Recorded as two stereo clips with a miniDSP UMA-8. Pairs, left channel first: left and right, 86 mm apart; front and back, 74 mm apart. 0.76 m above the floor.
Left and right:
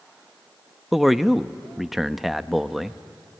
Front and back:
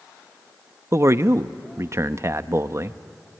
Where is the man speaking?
Straight behind, 0.5 m.